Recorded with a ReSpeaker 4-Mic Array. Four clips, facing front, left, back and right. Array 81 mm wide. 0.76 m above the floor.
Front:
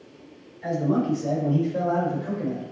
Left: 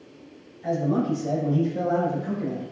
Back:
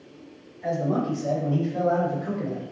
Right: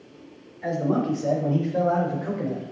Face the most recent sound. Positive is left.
turn(degrees=-90)